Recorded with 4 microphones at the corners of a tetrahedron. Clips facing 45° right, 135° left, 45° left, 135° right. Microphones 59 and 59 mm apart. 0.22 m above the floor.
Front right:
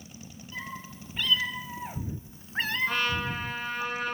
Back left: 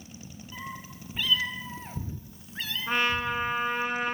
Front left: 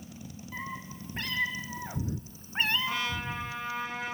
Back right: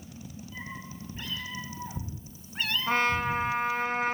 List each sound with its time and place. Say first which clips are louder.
0.5 s a cat meowing: front right 1 dB, front left 3 dB; 60° left, 3.5 m; by 3.9 s 70° right, 2.0 m
2.9 s a trumpet: back left 2 dB, back right 7 dB; 160° right, 2.5 m